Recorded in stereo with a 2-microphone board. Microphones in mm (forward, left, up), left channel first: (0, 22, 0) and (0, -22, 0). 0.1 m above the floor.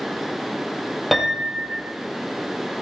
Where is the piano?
Centre (ahead or behind), 2.0 m.